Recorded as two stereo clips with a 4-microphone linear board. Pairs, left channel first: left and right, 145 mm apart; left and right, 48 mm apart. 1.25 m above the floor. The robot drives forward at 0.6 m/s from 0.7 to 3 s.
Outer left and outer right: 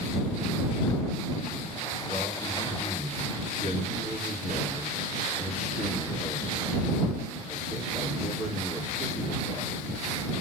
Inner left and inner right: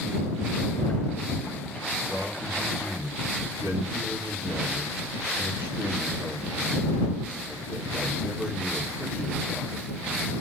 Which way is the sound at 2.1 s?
60° right (ahead or behind).